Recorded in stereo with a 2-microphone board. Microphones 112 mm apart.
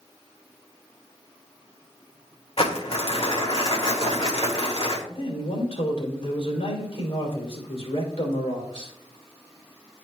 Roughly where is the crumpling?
Left.